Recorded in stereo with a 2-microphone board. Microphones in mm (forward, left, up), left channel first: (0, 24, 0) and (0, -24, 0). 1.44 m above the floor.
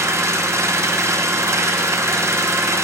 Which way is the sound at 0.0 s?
75° right (ahead or behind).